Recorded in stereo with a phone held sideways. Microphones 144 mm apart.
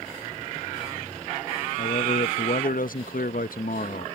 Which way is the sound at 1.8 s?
75° left (ahead or behind).